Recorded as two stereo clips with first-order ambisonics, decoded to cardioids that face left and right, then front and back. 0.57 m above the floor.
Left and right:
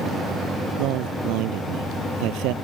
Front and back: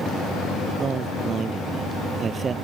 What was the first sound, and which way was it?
A man speaking, 115° right.